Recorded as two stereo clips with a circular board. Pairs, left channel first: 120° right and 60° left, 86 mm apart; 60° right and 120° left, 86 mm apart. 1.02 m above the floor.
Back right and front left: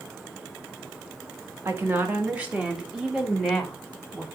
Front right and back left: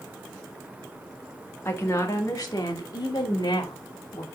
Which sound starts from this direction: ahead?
A woman speaking, at 1.6 s.